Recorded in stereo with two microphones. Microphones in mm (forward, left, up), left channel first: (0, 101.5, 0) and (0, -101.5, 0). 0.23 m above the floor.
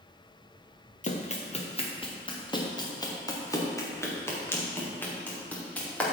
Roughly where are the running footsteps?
Left.